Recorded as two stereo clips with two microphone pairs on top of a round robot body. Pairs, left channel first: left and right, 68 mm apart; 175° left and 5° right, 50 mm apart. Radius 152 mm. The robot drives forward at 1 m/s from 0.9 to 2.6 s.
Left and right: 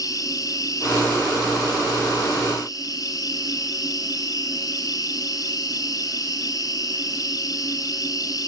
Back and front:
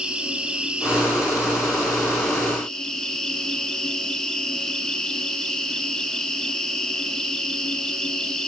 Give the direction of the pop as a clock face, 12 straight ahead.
No pop in this recording.